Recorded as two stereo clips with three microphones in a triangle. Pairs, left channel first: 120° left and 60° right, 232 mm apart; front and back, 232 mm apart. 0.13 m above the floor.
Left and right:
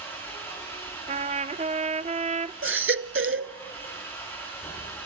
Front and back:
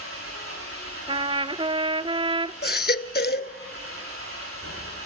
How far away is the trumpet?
About 0.5 m.